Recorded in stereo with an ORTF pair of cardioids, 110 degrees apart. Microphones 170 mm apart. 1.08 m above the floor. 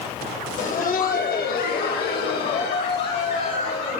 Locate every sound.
0.6 s laughter: 50° left, 0.9 m; by 4.0 s 75° left, 2.5 m